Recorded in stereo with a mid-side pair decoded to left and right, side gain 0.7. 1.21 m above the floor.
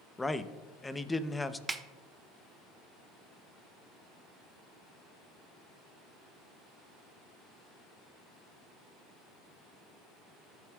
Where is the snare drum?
15° right, 0.7 m.